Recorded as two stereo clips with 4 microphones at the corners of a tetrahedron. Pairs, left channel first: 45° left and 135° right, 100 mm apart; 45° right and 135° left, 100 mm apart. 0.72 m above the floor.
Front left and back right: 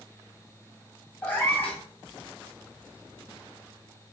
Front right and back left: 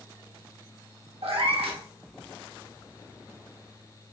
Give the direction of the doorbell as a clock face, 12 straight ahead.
I don't hear a doorbell.